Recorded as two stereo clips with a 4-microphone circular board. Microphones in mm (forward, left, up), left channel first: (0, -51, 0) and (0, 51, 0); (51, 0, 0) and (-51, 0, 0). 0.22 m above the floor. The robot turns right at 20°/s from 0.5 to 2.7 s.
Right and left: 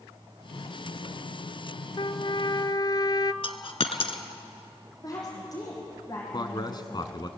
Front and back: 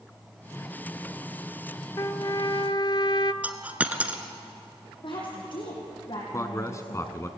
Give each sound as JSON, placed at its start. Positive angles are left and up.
{"t": 2.0, "sound": "a trumpet", "azimuth_deg": -55, "distance_m": 0.6}
{"t": 3.4, "sound": "a dropped coin", "azimuth_deg": -105, "distance_m": 1.3}
{"t": 5.0, "sound": "a woman speaking", "azimuth_deg": -35, "distance_m": 8.5}
{"t": 6.3, "sound": "a man speaking", "azimuth_deg": -55, "distance_m": 1.7}